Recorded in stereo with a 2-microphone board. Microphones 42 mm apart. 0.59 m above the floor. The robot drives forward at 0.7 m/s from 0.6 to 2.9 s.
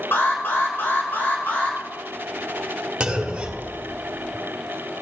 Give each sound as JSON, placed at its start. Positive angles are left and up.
{"t": 0.1, "sound": "an alarm", "side_deg": 60, "distance_m": 2.5}
{"t": 3.0, "sound": "a clunk", "side_deg": -25, "distance_m": 1.3}